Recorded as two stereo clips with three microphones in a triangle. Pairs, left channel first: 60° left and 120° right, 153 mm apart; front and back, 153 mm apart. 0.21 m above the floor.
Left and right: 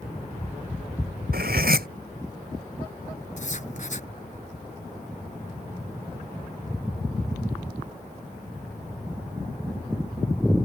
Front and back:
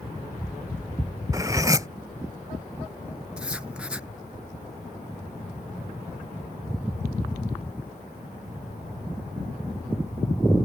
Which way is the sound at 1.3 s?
110° right.